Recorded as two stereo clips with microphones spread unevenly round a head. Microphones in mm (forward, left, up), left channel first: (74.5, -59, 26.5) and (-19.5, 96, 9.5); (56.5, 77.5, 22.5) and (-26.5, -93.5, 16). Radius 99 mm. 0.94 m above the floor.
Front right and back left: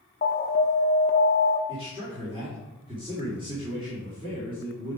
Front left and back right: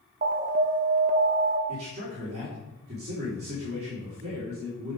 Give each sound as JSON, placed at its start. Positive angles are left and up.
{"t": 0.2, "sound": "an alarm", "azimuth_deg": -100, "distance_m": 0.9}
{"t": 1.7, "sound": "a man speaking", "azimuth_deg": -170, "distance_m": 3.0}